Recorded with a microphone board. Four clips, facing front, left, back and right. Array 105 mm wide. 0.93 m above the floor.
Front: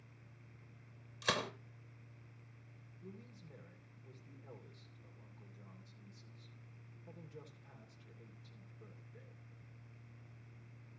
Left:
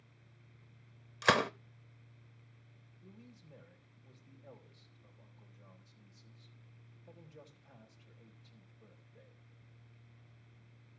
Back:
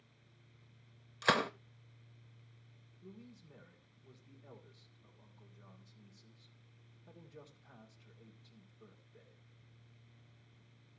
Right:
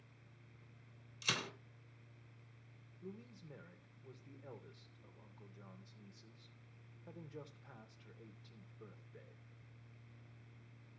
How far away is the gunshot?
About 0.7 m.